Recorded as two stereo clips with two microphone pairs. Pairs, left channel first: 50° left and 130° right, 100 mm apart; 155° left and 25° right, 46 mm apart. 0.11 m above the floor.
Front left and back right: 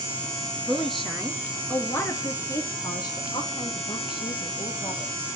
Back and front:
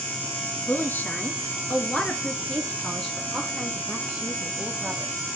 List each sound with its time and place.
0.7 s a woman speaking: 145° left, 1.6 m; by 5.3 s 55° left, 2.5 m